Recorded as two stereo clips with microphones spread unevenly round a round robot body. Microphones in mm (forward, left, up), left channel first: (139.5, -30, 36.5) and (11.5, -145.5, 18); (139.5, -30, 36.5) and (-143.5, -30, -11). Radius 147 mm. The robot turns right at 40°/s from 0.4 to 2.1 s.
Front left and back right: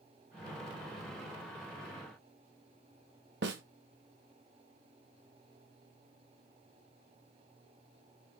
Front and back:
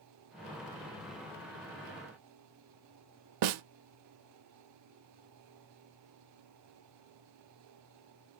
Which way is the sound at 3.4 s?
170° left.